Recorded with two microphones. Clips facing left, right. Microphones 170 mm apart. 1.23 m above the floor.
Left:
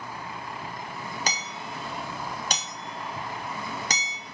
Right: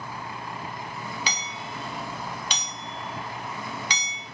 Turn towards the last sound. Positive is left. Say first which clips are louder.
# left 1 dB
turn(degrees=45)  # may be behind; listen again after turning